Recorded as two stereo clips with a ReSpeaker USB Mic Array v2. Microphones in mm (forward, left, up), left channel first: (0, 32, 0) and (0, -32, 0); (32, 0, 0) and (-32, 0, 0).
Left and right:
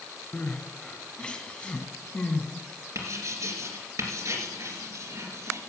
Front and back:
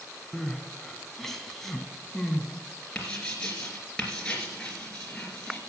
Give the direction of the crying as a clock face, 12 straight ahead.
10 o'clock.